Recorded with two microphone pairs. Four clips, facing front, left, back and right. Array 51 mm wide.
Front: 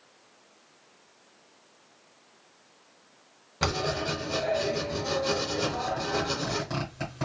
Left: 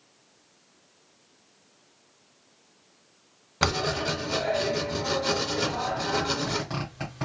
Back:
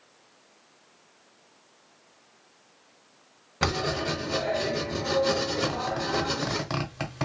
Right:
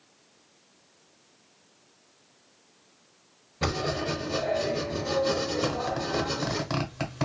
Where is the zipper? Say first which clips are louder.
Even, back 1 dB; 145° right, 1.1 m.